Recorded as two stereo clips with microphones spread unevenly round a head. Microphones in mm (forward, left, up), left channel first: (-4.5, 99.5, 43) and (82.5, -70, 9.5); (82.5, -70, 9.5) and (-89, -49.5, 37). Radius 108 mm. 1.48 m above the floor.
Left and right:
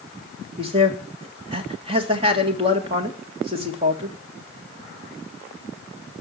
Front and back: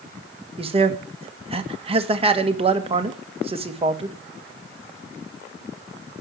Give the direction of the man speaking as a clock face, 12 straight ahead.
4 o'clock.